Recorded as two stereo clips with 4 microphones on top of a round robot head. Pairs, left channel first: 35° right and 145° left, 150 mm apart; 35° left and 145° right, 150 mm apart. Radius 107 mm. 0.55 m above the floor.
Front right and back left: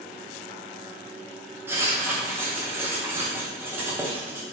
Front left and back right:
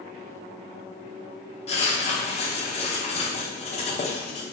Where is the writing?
75° left, 0.8 m.